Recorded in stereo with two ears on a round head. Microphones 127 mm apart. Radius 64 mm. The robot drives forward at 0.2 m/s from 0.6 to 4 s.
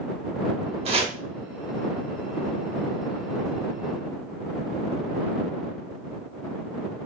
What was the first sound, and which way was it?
Chopping, 45° right (ahead or behind).